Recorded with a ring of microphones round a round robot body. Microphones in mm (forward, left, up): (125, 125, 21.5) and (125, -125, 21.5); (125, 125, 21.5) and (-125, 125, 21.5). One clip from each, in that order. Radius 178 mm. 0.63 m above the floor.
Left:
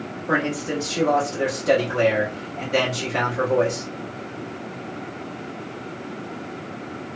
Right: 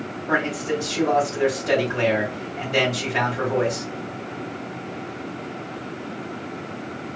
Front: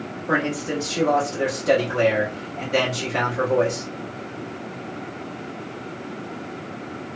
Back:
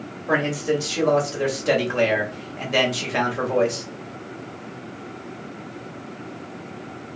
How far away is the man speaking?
About 1.6 m.